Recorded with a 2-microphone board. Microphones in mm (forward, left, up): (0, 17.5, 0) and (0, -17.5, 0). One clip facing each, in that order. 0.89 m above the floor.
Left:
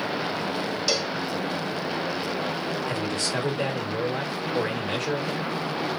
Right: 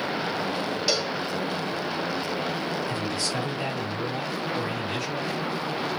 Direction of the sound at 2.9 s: 50° left (ahead or behind).